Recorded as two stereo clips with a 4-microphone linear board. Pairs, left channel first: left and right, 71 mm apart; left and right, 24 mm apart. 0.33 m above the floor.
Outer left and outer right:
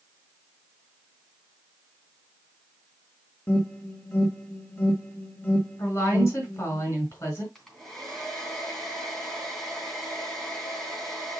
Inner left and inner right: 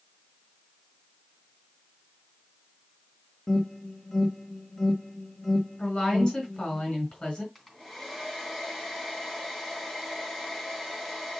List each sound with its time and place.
3.5 s an alarm: 20° left (ahead or behind), 1.8 m
5.8 s a woman speaking: 35° left (ahead or behind), 4.5 m
7.5 s a hair dryer: 5° left (ahead or behind), 2.5 m